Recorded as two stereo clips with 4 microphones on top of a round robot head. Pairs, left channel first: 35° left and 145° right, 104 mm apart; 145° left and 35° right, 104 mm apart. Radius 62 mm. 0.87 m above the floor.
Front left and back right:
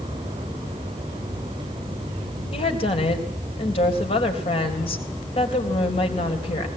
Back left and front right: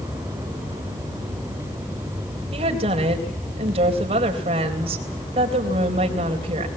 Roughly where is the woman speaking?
Ahead.